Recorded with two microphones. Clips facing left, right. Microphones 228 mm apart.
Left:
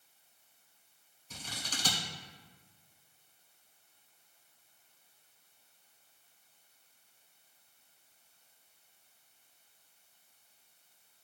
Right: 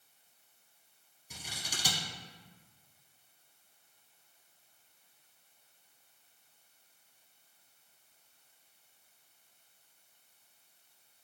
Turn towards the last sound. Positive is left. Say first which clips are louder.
# left 2 dB
turn(degrees=-10)  # may be behind; listen again after turning